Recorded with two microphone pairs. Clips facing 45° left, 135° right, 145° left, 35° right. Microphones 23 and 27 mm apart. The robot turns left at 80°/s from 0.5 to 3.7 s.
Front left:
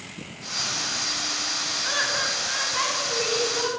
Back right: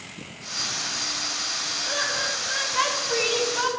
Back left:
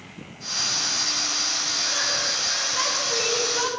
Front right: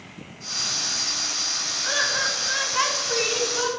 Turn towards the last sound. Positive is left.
turn(degrees=-130)